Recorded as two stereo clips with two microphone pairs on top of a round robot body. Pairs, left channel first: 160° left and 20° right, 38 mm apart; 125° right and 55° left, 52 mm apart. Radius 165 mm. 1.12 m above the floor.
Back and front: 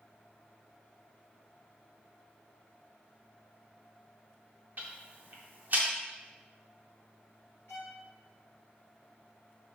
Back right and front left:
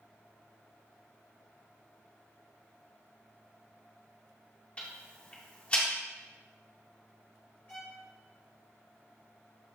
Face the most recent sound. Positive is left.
turn(degrees=170)